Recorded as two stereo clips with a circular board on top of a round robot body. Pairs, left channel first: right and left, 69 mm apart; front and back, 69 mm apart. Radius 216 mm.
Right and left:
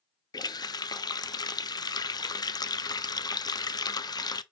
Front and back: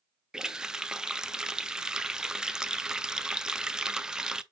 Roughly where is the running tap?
Right.